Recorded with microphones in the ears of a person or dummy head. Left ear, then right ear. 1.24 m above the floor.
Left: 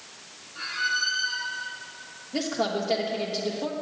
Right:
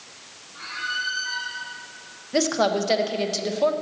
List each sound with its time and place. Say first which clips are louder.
0.6 s a squeak: left 2 dB; centre (ahead or behind), 2.5 m
2.3 s a woman speaking: right 6 dB; 70° right (ahead or behind), 1.0 m